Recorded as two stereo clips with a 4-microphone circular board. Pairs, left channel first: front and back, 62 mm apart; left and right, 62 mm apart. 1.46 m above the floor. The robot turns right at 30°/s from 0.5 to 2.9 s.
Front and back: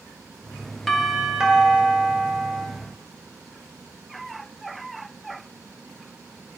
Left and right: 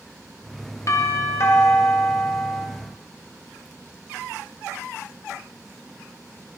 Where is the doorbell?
85° left, 0.8 m; by 2.7 s 140° left, 0.8 m.